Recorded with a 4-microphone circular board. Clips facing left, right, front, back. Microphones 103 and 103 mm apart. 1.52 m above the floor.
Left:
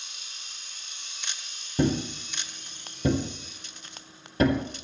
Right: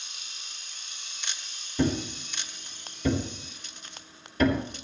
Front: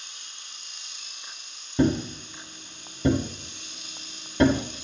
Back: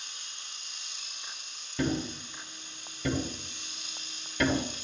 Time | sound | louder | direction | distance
1.8 | a thud | left 1 dB, front 7 dB | 50° left | 2.5 m